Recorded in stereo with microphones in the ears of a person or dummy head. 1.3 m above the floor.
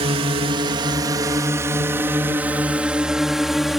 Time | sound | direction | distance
0.0 | a drone | 30° right (ahead or behind) | ?